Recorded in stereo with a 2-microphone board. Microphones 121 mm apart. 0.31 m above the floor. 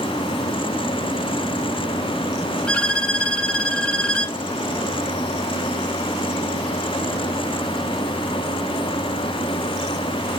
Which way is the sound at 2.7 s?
10° left (ahead or behind).